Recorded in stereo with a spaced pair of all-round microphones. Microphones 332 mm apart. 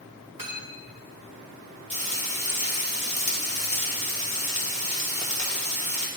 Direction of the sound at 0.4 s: 75° right (ahead or behind).